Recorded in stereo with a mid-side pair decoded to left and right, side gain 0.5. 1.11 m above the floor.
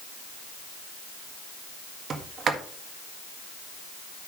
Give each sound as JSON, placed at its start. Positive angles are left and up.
{"t": 2.1, "sound": "a sliding door", "azimuth_deg": -45, "distance_m": 1.7}